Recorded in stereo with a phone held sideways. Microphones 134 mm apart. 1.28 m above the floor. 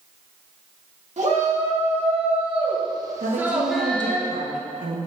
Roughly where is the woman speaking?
Right.